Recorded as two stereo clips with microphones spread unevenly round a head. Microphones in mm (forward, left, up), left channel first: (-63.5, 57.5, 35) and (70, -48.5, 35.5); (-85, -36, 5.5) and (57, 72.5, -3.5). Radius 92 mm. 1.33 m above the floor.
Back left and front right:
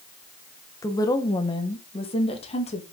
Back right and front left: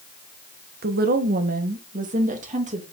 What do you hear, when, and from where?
0.8 s a woman speaking: 70° left, 1.3 m; by 2.8 s 90° left, 2.5 m